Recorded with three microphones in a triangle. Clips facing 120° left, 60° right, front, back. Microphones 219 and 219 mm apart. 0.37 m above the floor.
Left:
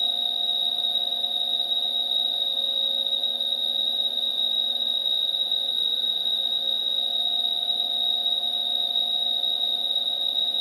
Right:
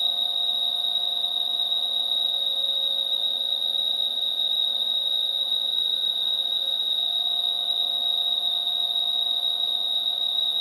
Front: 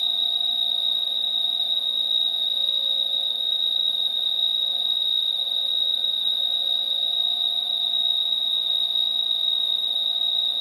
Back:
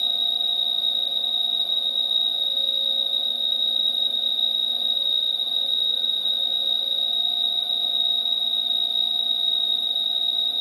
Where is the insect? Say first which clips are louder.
Left 2 dB, back 3 dB; 115° right, 1.8 m.